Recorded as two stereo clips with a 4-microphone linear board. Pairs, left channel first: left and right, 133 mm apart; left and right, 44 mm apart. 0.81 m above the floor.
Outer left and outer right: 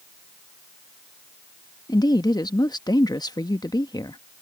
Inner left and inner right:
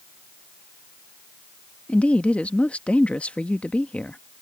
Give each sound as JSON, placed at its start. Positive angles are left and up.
{"t": 1.9, "sound": "a woman speaking", "side_deg": 30}